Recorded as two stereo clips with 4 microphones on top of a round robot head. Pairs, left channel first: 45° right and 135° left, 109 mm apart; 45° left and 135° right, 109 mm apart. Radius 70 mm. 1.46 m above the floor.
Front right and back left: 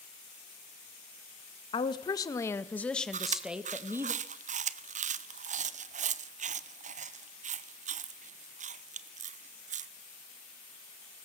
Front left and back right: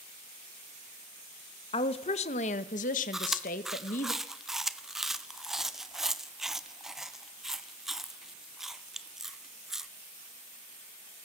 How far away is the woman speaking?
About 1.6 m.